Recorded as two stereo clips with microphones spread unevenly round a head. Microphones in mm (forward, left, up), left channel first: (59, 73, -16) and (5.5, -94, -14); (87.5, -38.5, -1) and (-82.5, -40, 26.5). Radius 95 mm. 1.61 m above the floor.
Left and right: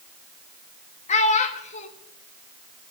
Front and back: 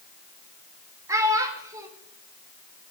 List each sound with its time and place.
1.1 s a child speaking: 115° left, 1.3 m